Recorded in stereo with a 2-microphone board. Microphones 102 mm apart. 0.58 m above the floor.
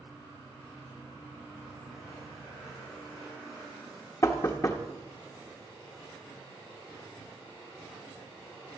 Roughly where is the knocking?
Left.